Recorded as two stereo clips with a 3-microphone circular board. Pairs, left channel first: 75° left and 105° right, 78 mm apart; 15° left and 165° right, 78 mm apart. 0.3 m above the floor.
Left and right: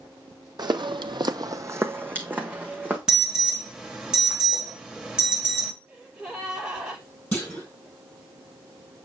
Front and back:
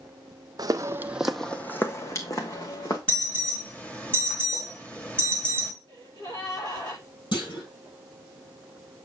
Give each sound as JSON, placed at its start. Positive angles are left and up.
{"t": 0.6, "sound": "footsteps", "azimuth_deg": -130, "distance_m": 0.8}
{"t": 3.1, "sound": "an alarm", "azimuth_deg": -35, "distance_m": 1.3}
{"t": 5.9, "sound": "a gasp", "azimuth_deg": -25, "distance_m": 6.5}
{"t": 7.3, "sound": "a clunk", "azimuth_deg": 0, "distance_m": 4.5}